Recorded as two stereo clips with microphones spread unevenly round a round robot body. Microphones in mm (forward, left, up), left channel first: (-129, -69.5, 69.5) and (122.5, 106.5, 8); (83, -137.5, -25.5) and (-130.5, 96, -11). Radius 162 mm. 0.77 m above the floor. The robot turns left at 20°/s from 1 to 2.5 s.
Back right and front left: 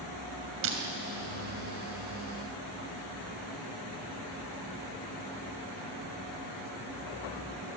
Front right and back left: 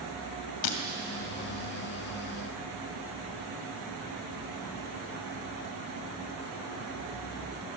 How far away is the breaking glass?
About 2.5 m.